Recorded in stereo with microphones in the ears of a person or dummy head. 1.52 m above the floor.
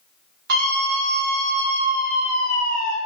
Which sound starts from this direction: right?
A scream, at 0.5 s.